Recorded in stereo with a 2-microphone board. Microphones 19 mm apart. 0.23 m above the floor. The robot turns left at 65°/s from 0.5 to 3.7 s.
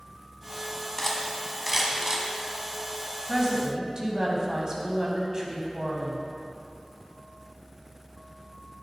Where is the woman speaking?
20° right (ahead or behind), 1.3 m; by 6.2 s 35° right (ahead or behind), 1.3 m.